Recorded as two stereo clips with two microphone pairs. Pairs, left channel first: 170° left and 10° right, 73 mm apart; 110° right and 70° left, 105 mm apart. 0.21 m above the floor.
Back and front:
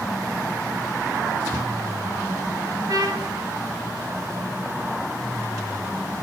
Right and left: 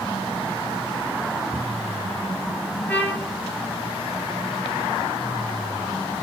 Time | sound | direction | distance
2.9 | a trumpet | 35° right | 2 m